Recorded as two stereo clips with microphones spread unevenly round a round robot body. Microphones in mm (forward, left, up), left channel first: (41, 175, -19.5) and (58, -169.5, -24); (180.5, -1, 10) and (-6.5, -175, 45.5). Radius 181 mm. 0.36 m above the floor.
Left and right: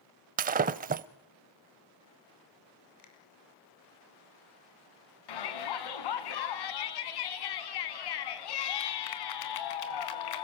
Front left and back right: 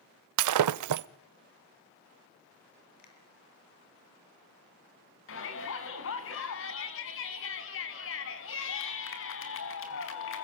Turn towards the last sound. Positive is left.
turn(degrees=85)